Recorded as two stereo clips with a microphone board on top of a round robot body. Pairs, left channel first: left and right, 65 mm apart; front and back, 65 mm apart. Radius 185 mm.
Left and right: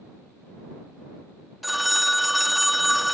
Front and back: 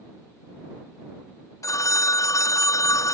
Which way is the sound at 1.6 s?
Straight ahead.